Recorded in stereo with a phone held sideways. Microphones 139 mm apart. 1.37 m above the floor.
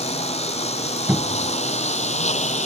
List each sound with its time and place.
0.0 s a lawn mower: 50° left (ahead or behind); by 2.7 s 55° left (ahead or behind)
1.1 s a cupboard door: 15° right (ahead or behind)